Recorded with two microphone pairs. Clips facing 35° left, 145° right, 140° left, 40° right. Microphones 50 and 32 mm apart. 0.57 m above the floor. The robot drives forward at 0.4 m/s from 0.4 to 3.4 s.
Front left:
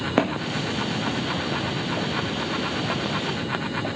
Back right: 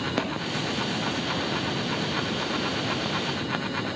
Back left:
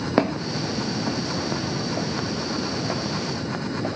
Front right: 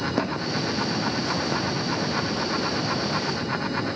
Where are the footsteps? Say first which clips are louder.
Front left 5 dB, back left 3 dB; 95° left, 2 m; by 3.9 s 105° left, 4.5 m.